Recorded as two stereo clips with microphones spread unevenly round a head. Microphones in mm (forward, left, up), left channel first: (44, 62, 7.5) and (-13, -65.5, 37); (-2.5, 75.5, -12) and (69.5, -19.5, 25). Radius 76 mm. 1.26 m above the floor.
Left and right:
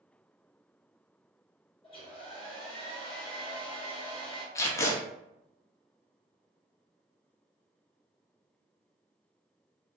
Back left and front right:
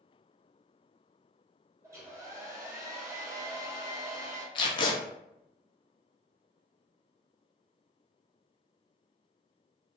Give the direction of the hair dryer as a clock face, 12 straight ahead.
11 o'clock.